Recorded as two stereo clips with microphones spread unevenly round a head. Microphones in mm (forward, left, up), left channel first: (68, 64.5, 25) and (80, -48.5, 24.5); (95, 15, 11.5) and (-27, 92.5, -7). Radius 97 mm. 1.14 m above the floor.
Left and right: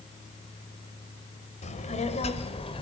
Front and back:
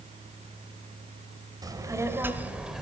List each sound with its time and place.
1.6 s a child speaking: 80° left, 3.5 m; by 2.8 s 60° left, 3 m